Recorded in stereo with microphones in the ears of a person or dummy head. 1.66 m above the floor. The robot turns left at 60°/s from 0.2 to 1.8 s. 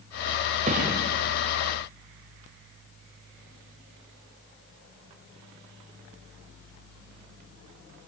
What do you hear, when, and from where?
0.7 s a thud: 35° right (ahead or behind), 3 m; by 1.0 s 55° right (ahead or behind), 3 m